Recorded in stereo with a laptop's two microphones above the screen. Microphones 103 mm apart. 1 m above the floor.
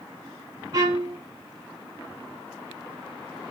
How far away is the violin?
About 2.5 m.